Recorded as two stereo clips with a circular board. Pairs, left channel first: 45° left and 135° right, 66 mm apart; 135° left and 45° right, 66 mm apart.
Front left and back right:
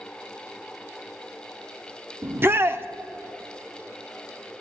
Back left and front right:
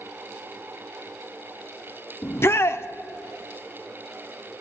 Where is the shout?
175° left, 0.6 m.